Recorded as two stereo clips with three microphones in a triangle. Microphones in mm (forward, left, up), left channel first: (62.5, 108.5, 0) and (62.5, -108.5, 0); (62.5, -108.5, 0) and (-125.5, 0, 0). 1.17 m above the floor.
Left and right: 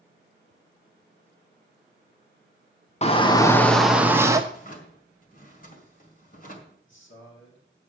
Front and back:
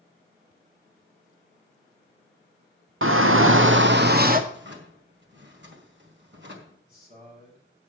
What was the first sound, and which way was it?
A shout, 145° left.